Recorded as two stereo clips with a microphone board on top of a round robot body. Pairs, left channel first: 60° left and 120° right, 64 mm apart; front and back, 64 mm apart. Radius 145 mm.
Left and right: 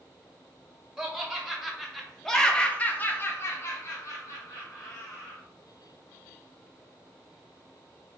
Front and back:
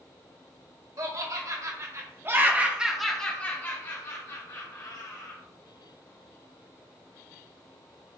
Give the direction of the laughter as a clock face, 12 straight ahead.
7 o'clock.